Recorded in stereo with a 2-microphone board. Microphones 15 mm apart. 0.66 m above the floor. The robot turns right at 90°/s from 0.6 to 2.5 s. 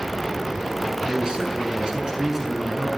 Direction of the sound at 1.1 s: 140° right.